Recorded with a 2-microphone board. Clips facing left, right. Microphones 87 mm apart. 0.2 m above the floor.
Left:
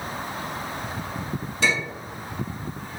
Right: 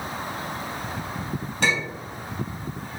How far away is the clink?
About 1.8 m.